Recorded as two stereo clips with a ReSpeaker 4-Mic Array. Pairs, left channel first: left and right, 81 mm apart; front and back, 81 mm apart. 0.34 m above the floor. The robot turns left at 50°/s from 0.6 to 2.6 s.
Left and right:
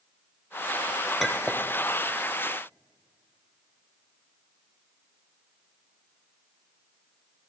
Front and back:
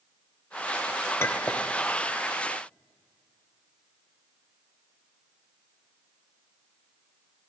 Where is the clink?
Straight ahead, 0.8 m; by 1.7 s 25° right, 0.8 m.